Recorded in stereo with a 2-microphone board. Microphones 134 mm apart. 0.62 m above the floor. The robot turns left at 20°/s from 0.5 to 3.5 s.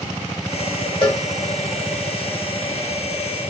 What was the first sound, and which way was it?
A cowbell, 45° left (ahead or behind).